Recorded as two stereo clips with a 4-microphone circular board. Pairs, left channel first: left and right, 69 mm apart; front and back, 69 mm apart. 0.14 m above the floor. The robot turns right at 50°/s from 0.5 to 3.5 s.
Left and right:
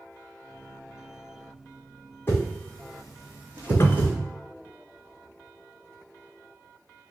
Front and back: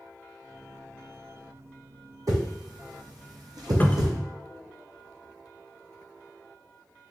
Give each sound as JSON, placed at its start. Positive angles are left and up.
{"t": 2.3, "sound": "a whoosh", "azimuth_deg": 145, "distance_m": 1.5}
{"t": 3.8, "sound": "a cupboard door", "azimuth_deg": 55, "distance_m": 0.5}